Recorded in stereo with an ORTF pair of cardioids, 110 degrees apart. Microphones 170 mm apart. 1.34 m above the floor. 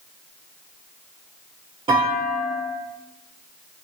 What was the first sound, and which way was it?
A clunk, 35° right.